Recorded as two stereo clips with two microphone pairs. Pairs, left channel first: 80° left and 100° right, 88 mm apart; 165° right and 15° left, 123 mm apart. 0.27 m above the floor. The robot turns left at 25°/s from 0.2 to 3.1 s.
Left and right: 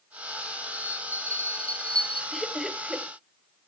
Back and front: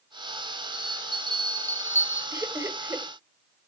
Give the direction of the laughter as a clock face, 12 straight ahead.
12 o'clock.